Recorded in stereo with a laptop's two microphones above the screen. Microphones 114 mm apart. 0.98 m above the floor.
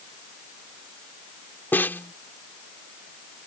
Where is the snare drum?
15° left (ahead or behind).